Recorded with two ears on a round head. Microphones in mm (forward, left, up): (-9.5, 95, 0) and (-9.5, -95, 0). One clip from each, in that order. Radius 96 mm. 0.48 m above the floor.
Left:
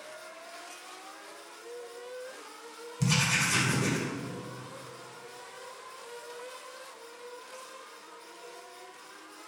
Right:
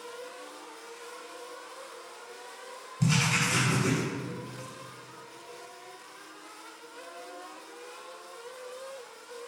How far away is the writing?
About 2 m.